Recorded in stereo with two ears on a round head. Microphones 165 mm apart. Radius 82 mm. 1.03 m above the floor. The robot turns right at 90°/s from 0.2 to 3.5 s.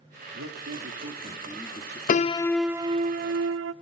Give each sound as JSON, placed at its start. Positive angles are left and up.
{"t": 0.3, "sound": "a man speaking", "azimuth_deg": -105, "distance_m": 2.5}
{"t": 2.1, "sound": "a piano", "azimuth_deg": 135, "distance_m": 0.6}